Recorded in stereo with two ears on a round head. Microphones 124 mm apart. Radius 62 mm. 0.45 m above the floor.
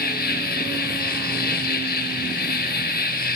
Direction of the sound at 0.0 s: 70° left (ahead or behind).